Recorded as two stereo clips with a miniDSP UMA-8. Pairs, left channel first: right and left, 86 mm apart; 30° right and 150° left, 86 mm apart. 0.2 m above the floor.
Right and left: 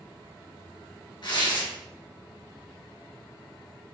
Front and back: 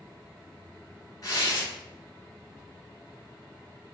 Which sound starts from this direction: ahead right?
Tearing paper, at 1.2 s.